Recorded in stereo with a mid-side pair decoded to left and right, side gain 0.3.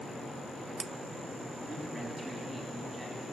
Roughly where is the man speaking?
Ahead right.